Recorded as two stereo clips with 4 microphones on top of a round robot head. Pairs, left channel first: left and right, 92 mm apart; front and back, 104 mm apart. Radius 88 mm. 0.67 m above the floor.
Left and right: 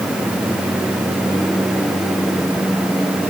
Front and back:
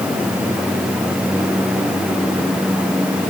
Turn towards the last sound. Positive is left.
No sound to turn to.